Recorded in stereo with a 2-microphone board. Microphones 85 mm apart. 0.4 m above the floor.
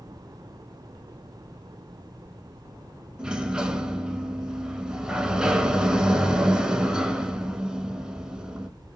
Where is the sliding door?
10° right (ahead or behind), 0.6 m.